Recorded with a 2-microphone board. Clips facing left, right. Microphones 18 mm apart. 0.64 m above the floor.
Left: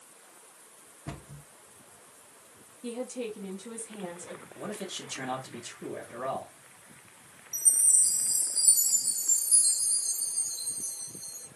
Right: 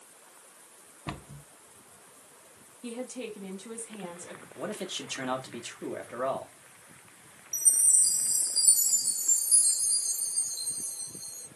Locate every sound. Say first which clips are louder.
1.1 s a cupboard door: right 3 dB; 70° right (ahead or behind), 0.5 m
2.8 s a woman speaking: left 2 dB; 5° right (ahead or behind), 1.1 m
4.6 s a man speaking: right 3 dB; 35° right (ahead or behind), 1.2 m
7.5 s a chime: even; 20° right (ahead or behind), 1.8 m